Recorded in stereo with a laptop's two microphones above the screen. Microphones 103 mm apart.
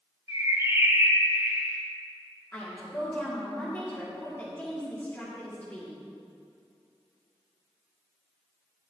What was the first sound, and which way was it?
A bird, 30° right (ahead or behind).